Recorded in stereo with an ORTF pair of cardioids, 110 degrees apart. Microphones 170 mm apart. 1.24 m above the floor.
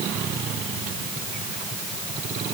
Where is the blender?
No blender in this recording.